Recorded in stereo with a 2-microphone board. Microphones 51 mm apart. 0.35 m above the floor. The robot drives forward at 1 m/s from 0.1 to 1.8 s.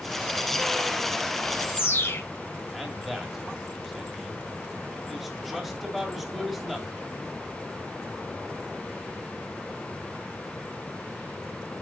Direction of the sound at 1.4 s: 50° left (ahead or behind).